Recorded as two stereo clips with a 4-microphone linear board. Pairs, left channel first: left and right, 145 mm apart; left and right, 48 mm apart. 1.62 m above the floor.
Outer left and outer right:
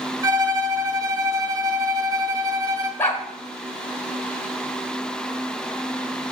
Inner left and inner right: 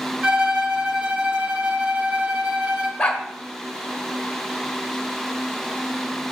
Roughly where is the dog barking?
Centre.